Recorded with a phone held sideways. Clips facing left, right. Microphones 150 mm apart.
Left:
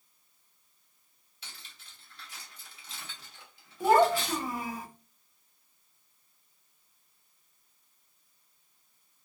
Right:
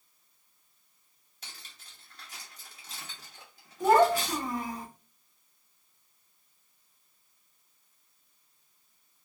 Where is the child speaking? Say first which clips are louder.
Right 1 dB; 5° left (ahead or behind), 0.9 m.